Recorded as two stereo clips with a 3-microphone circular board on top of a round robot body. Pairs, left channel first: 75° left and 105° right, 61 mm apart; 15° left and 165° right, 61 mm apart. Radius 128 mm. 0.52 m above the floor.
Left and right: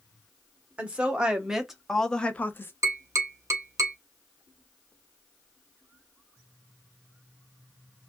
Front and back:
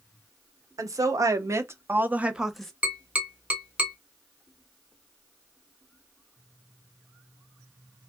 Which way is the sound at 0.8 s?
170° right.